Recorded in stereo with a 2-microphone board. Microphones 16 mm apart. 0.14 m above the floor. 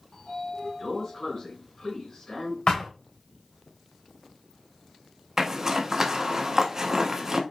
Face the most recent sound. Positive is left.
turn(degrees=-30)  # may be behind; listen again after turning